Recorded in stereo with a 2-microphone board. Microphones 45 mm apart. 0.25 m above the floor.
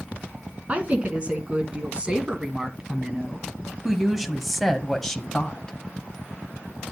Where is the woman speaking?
30° right (ahead or behind), 3 m; by 5.8 s 20° left (ahead or behind), 1.4 m.